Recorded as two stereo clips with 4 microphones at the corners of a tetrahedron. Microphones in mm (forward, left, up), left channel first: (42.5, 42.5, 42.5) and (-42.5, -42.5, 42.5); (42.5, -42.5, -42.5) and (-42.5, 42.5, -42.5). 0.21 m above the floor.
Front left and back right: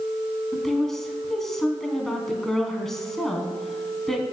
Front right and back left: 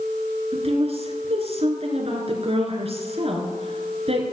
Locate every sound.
0.5 s a woman speaking: 130° left, 2.5 m